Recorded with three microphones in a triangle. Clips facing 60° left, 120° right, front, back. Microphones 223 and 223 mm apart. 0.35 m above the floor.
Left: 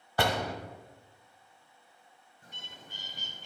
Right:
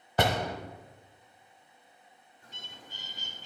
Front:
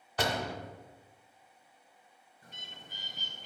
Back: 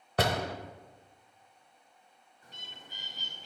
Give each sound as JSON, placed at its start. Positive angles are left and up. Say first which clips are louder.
{"t": 0.2, "sound": "a door slam", "louder": "right 2 dB, back 3 dB", "azimuth_deg": 175, "distance_m": 0.9}
{"t": 2.4, "sound": "a bird", "louder": "even, even", "azimuth_deg": 35, "distance_m": 1.8}